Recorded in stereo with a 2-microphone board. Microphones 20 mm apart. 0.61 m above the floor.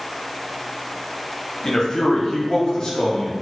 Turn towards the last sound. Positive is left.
turn(degrees=40)  # may be behind; listen again after turning